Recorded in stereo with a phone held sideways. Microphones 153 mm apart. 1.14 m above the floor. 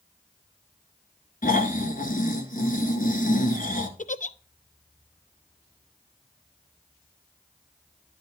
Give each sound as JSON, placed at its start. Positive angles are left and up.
{"t": 1.4, "sound": "snoring", "side_deg": 60, "distance_m": 1.7}
{"t": 4.0, "sound": "a giggle", "side_deg": 55, "distance_m": 0.5}